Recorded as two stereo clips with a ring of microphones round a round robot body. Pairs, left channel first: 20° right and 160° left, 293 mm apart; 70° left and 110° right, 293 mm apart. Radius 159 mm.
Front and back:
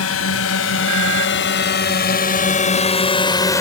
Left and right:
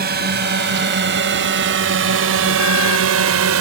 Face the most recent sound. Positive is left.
turn(degrees=-100)